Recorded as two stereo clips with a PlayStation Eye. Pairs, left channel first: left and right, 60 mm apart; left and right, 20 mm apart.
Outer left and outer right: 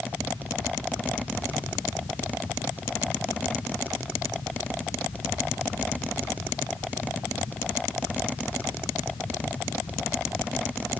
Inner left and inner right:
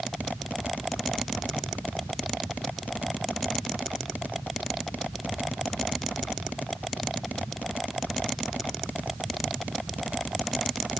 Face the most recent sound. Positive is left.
No sound to turn to.